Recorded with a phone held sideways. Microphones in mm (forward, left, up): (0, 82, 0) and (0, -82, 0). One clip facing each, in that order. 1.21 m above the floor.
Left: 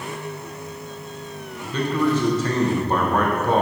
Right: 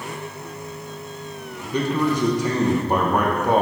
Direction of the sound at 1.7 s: 15° right (ahead or behind).